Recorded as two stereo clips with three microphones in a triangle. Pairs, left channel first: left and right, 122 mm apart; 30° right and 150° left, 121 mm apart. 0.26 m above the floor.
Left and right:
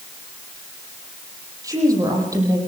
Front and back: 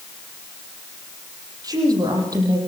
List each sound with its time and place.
1.6 s a woman speaking: 150° right, 7.5 m